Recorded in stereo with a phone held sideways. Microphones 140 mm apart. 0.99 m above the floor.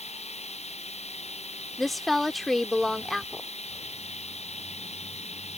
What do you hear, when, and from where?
0.0 s running water: 50° left (ahead or behind)
1.8 s a woman speaking: centre (ahead or behind)